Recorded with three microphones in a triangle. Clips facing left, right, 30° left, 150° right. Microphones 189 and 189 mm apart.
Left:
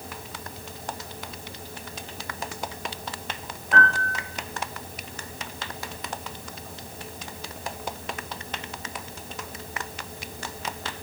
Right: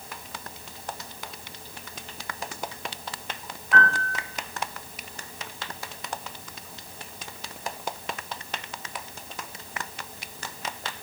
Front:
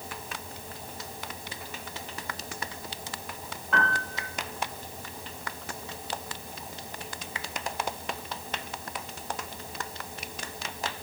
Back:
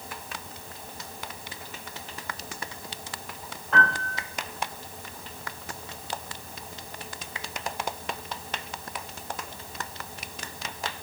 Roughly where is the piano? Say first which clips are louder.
Left 1 dB, back 2 dB; behind left.